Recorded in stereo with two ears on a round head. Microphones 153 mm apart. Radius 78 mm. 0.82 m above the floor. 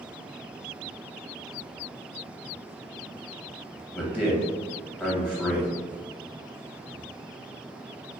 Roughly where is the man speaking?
Centre.